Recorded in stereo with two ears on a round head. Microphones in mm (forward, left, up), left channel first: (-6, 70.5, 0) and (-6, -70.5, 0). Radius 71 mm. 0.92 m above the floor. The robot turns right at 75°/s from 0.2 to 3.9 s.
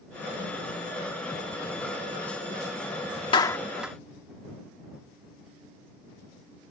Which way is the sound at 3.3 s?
30° left (ahead or behind).